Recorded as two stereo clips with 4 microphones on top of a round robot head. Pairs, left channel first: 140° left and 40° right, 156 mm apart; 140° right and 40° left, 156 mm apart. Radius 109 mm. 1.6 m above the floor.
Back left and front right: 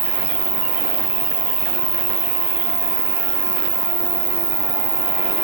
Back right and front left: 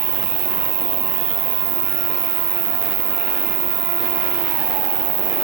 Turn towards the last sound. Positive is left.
turn(degrees=20)